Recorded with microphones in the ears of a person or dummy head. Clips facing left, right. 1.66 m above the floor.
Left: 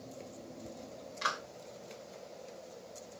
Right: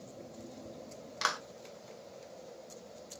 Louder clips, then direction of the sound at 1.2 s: Right 2 dB; 70° right (ahead or behind).